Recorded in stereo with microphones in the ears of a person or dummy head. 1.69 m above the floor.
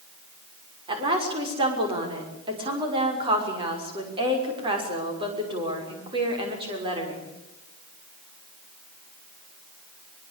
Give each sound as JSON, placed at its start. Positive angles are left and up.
{"t": 0.9, "sound": "a woman speaking", "side_deg": -25, "distance_m": 6.0}